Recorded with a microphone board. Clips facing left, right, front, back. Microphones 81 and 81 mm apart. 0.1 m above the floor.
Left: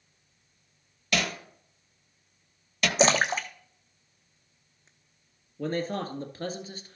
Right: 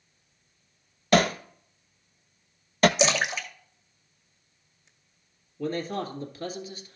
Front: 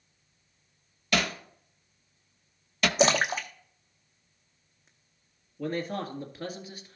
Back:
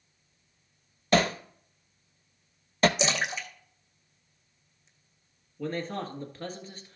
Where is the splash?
40° left, 0.9 m.